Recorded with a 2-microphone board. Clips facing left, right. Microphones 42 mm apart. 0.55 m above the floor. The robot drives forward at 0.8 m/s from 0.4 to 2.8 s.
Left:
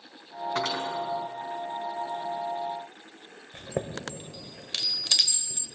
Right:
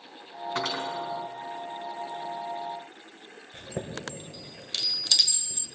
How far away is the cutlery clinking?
About 3 m.